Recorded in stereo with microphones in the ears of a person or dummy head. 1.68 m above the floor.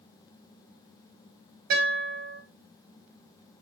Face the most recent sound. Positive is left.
turn(degrees=-60)  # may be behind; listen again after turning